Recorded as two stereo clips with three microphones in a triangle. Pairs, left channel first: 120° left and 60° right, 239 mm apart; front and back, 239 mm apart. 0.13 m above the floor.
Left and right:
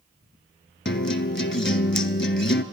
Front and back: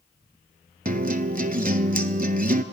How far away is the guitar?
About 0.8 m.